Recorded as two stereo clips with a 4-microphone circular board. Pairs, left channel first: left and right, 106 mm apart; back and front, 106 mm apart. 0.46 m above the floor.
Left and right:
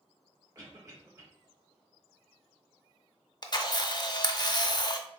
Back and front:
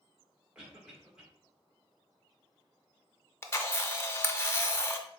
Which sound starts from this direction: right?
A cough, at 0.6 s.